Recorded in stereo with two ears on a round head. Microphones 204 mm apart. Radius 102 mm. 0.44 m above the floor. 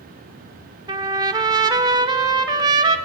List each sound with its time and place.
0.9 s a trumpet: 20° right (ahead or behind), 0.9 m